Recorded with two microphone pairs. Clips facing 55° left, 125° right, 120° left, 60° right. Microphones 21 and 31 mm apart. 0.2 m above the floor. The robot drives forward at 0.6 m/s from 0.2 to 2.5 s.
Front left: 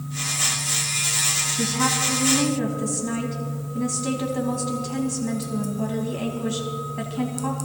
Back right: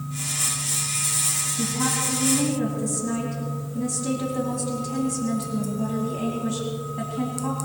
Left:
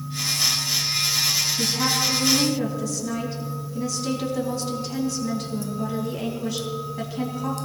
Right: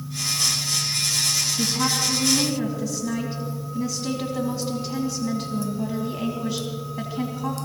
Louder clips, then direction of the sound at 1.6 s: Front left 1 dB, even; 10° left.